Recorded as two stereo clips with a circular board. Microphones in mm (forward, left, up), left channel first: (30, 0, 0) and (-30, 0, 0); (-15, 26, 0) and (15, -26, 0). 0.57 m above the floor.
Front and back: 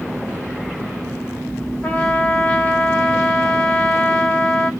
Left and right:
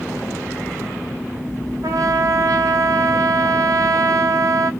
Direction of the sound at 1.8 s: 65° right.